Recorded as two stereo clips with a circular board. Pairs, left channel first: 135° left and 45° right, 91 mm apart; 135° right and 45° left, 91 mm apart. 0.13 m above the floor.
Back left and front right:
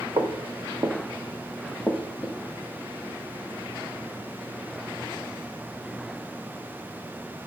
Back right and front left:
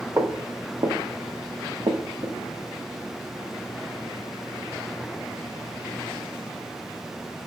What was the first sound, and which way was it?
Footsteps, 5° right.